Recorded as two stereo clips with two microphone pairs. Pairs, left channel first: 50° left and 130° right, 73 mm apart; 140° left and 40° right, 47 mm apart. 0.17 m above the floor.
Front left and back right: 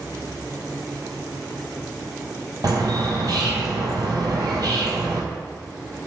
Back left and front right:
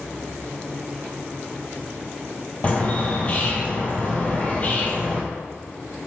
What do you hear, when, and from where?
2.6 s a bird: 155° right, 0.7 m